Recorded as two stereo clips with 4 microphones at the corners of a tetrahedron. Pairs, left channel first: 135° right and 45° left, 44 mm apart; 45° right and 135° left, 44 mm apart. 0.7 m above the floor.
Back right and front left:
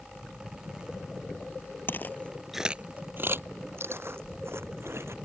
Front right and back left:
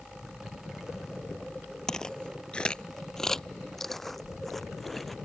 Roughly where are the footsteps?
Behind right.